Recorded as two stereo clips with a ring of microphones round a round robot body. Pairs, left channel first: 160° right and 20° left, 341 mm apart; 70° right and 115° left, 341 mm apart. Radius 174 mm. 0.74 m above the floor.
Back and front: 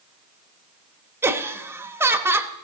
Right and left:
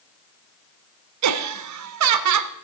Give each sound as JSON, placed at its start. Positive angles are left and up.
{"t": 1.2, "sound": "laughter", "azimuth_deg": 105, "distance_m": 0.9}